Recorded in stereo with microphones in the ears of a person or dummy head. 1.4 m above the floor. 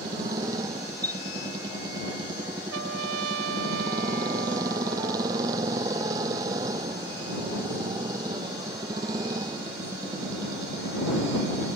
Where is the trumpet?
85° right.